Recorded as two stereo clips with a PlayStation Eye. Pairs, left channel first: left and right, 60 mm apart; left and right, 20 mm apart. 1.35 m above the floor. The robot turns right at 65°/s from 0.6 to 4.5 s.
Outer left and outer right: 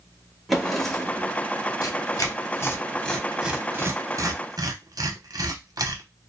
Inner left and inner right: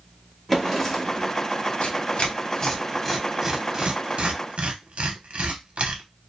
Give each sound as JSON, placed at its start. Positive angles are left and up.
{"t": 0.5, "sound": "a drawer", "azimuth_deg": 0, "distance_m": 0.8}
{"t": 1.8, "sound": "tearing paper", "side_deg": 85, "distance_m": 0.7}